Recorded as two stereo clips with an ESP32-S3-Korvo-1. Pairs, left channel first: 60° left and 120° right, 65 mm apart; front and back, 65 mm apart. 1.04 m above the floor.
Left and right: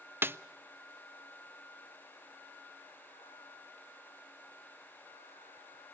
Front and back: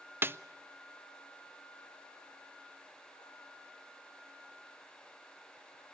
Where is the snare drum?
145° right, 0.5 m.